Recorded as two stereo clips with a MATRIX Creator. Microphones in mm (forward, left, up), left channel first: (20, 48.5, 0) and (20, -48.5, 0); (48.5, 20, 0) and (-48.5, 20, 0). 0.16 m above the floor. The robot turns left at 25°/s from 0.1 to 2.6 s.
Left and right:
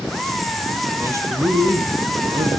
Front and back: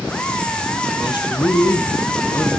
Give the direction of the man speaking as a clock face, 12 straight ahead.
1 o'clock.